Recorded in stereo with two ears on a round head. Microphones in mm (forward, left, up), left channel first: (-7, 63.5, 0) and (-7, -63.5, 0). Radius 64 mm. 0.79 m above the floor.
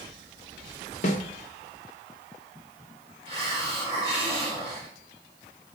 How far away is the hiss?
About 3 m.